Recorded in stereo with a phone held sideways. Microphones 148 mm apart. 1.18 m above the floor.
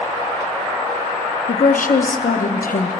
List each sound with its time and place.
1.5 s a woman speaking: 80° left, 0.6 m